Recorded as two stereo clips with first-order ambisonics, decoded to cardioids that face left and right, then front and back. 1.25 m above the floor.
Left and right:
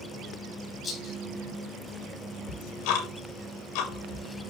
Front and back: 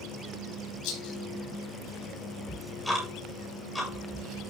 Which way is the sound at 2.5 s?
90° left.